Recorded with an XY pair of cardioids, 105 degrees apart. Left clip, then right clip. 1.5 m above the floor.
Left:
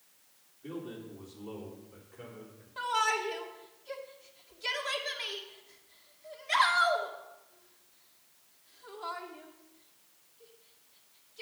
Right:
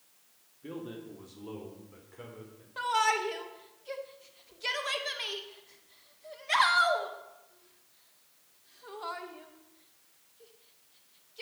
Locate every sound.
0.6 s a man speaking: 20° right, 2 m; by 2.7 s 30° right, 5 m
2.8 s a shout: 20° right, 1.8 m